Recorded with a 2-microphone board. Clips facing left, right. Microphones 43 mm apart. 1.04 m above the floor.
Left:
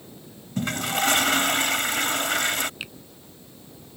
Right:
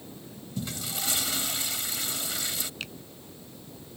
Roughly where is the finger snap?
Centre.